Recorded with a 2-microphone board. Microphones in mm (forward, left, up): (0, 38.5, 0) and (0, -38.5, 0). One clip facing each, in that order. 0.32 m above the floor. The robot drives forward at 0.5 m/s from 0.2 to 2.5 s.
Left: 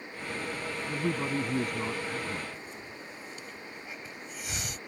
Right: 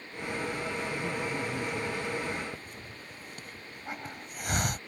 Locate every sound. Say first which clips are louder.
0.8 s a man speaking: left 2 dB; 60° left (ahead or behind); by 2.4 s 50° left (ahead or behind)
2.5 s a hiss: left 1 dB; 50° right (ahead or behind)